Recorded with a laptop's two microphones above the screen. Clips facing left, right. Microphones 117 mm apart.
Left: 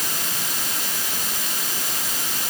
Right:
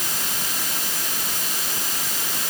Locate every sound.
Only background noise.